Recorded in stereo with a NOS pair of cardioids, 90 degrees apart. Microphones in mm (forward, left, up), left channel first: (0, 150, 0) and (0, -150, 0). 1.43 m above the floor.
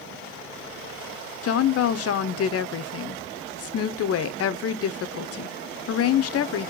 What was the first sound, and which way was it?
A woman speaking, 50° left.